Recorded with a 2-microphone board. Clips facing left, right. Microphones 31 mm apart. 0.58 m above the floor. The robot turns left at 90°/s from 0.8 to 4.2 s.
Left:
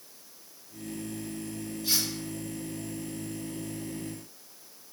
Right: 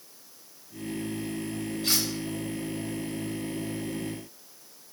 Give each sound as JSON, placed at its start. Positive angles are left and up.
{"t": 1.8, "sound": "cutlery clinking", "side_deg": -70, "distance_m": 1.5}